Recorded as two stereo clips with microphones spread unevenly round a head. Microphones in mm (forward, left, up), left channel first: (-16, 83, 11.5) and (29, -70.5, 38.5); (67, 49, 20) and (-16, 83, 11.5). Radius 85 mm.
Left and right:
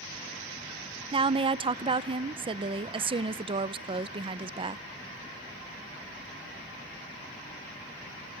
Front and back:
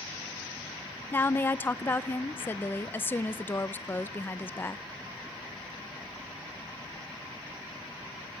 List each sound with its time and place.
1.1 s a woman speaking: 65° right, 0.6 m